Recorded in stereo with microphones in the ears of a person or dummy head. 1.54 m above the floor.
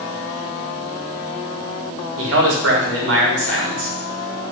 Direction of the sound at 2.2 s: 80° right.